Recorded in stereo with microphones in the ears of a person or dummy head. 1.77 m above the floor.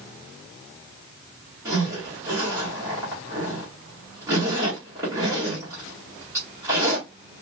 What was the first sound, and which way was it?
A zipper, 15° right (ahead or behind).